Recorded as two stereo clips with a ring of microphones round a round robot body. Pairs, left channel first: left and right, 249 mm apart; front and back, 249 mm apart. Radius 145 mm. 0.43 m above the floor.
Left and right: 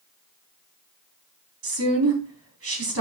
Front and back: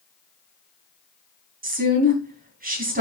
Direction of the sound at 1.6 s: 125° right.